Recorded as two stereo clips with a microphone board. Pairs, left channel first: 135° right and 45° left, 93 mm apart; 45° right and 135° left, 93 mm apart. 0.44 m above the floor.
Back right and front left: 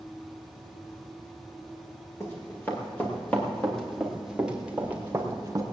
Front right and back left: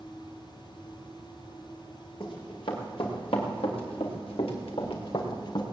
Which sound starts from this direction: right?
Running footsteps, at 2.2 s.